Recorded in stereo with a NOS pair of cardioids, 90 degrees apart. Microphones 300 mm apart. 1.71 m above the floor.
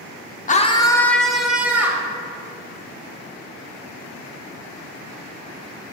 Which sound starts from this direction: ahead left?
A scream, at 0.5 s.